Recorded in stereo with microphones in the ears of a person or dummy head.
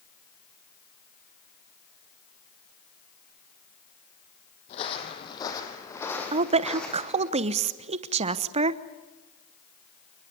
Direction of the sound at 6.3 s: 35° right (ahead or behind).